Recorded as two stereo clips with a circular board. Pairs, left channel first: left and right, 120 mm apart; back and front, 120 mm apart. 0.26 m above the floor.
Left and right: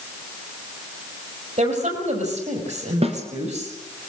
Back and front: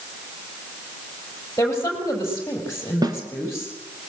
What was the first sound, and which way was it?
A woman speaking, 110° right.